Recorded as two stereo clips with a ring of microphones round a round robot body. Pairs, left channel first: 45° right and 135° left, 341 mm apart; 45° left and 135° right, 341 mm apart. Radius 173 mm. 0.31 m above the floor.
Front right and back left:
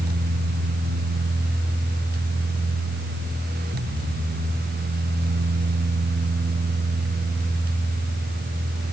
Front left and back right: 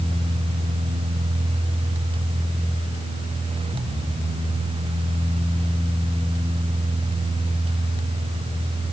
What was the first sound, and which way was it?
Only background noise.